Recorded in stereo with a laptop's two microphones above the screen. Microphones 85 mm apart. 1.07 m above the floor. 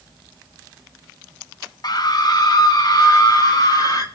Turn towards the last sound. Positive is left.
turn(degrees=50)  # may be behind; listen again after turning